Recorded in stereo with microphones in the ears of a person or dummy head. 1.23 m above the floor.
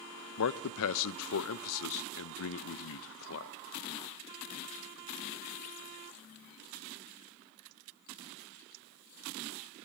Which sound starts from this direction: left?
A man speaking, at 0.4 s.